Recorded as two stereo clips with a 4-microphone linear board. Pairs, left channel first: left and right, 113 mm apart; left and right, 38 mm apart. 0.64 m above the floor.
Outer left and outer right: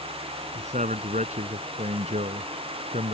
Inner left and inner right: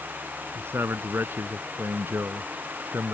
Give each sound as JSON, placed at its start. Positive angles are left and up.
{"t": 0.6, "sound": "a man speaking", "side_deg": -80}